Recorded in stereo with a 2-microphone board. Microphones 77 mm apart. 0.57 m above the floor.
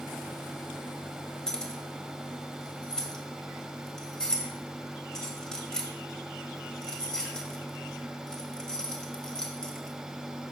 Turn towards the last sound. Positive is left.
turn(degrees=5)  # may be behind; listen again after turning